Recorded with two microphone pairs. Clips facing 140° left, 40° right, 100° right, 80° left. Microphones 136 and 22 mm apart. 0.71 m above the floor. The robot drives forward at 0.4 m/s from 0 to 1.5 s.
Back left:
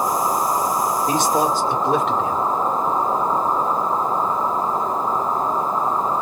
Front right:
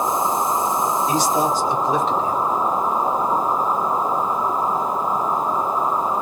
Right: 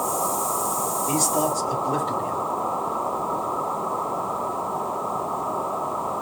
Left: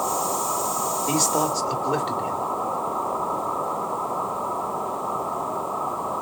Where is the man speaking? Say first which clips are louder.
Back left 2 dB, left 1 dB; 110° left, 1.6 m; by 2.5 s 120° left, 1.6 m.